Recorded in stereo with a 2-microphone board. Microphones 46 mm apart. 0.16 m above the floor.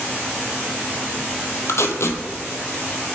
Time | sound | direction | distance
1.7 | tape being pulled | 70° left (ahead or behind) | 1.1 m